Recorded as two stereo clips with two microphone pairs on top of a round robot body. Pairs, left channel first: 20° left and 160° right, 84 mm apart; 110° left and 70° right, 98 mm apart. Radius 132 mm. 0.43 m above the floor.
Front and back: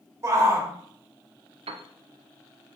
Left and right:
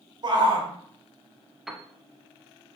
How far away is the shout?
About 1.9 m.